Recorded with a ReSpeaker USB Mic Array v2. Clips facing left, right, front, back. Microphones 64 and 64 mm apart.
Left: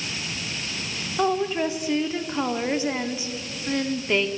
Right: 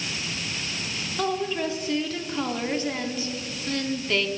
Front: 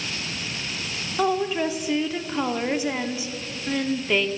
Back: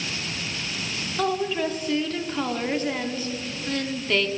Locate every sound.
1.2 s a woman speaking: 60° left, 0.7 m